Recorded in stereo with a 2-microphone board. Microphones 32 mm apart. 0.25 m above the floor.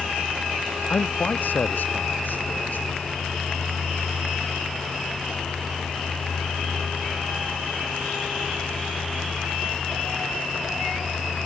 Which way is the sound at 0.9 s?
70° left (ahead or behind).